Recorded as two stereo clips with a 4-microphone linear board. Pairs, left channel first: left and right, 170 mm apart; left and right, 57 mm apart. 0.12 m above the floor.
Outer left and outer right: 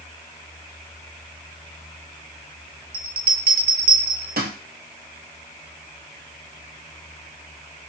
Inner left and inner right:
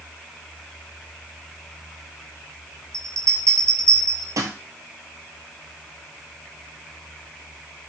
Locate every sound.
2.9 s a bell: 70° right (ahead or behind), 0.6 m